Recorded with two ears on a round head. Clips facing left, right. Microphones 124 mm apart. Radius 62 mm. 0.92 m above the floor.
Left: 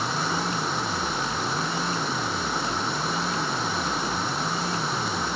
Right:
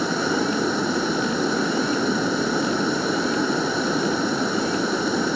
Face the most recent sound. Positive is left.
turn(degrees=-90)